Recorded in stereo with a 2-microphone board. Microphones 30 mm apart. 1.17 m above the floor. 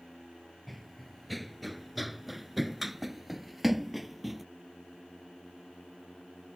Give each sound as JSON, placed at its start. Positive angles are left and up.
{"t": 0.7, "sound": "running footsteps", "side_deg": 5}